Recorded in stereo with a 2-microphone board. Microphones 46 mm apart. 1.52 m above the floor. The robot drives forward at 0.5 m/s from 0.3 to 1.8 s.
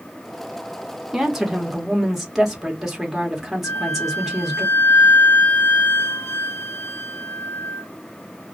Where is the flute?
50° left (ahead or behind), 0.6 m.